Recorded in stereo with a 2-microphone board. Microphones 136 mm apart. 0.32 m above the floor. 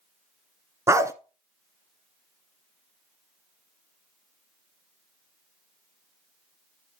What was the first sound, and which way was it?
A dog barking, 20° right (ahead or behind).